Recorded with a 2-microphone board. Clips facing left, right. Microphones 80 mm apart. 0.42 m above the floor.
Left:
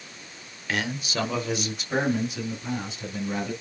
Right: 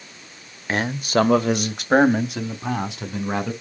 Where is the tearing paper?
I don't hear tearing paper.